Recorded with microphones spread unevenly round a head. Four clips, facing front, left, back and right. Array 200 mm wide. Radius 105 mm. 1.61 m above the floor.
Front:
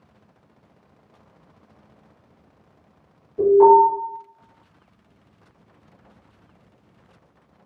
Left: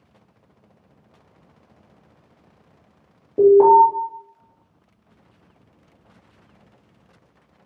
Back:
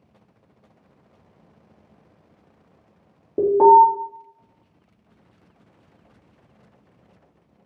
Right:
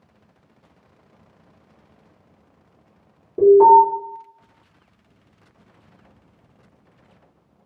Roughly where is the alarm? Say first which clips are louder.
Right 1 dB, even; behind.